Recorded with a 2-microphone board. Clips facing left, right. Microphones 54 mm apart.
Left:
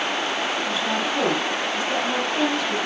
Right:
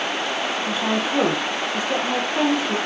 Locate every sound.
0.7 s a woman speaking: 25° right (ahead or behind), 5.5 m